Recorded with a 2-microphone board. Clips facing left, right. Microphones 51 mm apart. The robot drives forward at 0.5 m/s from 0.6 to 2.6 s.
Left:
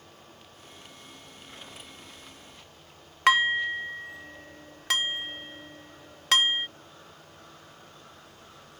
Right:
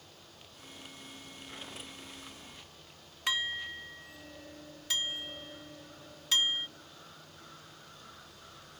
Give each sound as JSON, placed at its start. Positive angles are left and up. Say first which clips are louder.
{"t": 3.3, "sound": "dishes clattering", "louder": "left 12 dB", "side_deg": 65}